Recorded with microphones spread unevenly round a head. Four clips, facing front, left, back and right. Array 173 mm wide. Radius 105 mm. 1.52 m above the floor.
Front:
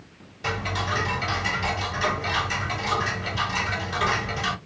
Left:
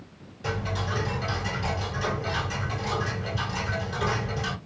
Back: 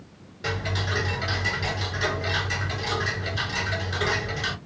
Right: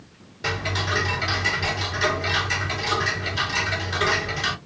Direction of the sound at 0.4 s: 95° right.